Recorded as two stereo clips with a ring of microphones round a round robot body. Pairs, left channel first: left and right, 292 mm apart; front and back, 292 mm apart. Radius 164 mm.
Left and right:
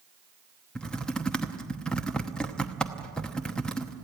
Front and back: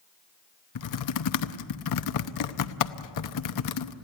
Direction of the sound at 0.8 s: 5° left.